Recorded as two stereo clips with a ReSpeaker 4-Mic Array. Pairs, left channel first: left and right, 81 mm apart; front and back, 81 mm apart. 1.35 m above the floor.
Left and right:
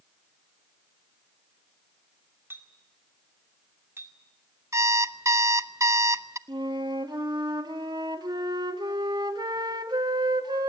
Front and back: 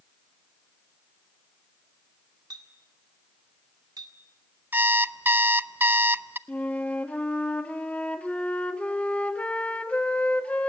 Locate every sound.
2.5 s a clink: 150° right, 2 m
4.7 s an alarm clock: 125° right, 0.6 m
6.5 s a flute: 70° right, 1.6 m